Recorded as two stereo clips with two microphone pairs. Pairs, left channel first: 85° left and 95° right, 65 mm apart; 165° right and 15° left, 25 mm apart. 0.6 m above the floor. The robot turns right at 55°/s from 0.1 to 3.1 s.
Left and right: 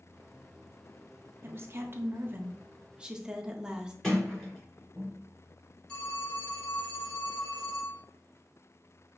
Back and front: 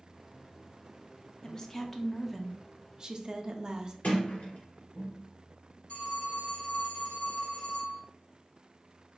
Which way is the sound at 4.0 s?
165° left.